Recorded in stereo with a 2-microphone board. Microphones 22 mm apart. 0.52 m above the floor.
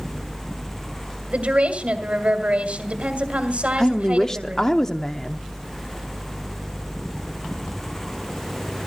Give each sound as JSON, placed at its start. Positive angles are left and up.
{"t": 1.3, "sound": "a woman speaking", "side_deg": -70, "distance_m": 2.0}
{"t": 3.8, "sound": "a woman speaking", "side_deg": 25, "distance_m": 0.6}